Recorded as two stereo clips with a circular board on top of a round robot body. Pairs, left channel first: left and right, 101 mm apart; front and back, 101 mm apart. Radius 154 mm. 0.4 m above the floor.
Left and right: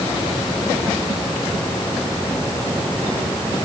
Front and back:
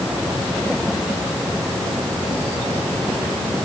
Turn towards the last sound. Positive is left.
No sound to turn to.